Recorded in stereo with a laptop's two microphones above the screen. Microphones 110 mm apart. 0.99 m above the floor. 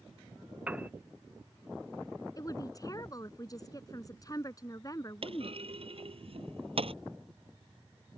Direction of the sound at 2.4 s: 30° left (ahead or behind).